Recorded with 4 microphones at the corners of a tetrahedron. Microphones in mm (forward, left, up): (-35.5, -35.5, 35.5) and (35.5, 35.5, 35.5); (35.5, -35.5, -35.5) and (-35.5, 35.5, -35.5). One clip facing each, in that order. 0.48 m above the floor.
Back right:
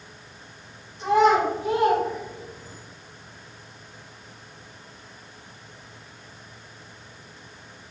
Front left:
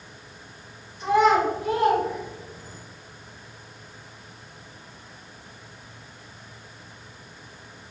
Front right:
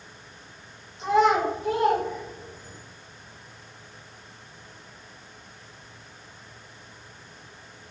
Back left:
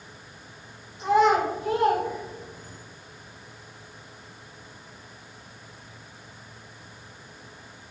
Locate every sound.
1.0 s a child speaking: 165° left, 1.9 m; by 2.8 s 130° left, 1.3 m